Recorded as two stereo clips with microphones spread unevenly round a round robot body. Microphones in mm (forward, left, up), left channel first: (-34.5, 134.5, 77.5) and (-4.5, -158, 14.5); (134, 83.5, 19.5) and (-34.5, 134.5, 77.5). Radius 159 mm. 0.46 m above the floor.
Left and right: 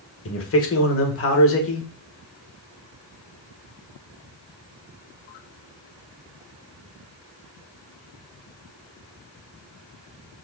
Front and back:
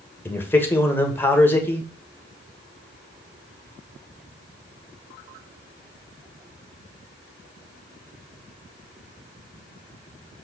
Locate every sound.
0.2 s a man speaking: 50° left, 1.9 m